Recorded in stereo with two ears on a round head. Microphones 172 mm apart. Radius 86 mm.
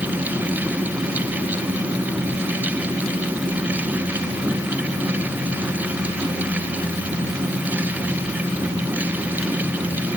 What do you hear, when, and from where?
Only background noise.